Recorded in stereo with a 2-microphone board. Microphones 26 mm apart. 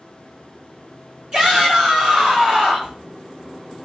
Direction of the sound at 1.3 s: 35° right (ahead or behind).